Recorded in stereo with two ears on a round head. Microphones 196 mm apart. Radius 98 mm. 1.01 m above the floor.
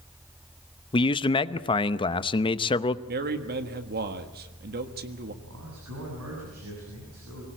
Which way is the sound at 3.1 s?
45° right (ahead or behind).